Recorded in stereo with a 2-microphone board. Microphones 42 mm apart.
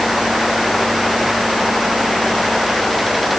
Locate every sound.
Only background noise.